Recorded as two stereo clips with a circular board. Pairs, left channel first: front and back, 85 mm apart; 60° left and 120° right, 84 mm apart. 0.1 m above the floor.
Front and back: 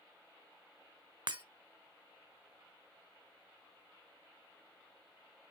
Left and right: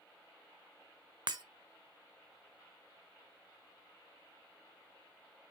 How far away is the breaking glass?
About 0.9 m.